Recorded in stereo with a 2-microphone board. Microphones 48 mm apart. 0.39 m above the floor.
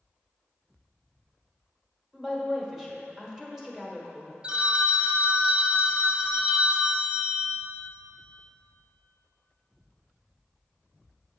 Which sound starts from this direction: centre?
A woman speaking, at 2.1 s.